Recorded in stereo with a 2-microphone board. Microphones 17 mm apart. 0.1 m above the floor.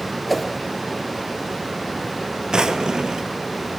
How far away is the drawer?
About 1.4 m.